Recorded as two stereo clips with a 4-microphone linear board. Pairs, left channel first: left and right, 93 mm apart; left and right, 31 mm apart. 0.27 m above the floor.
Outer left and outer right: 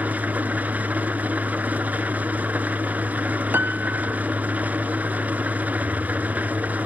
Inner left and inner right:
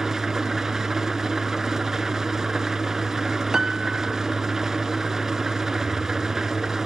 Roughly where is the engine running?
Centre.